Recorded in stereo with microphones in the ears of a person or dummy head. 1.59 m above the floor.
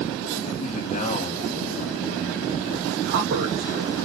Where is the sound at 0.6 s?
40° left (ahead or behind), 2.5 m.